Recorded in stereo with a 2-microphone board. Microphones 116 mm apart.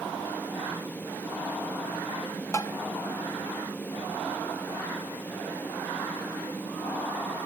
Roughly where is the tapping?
Left.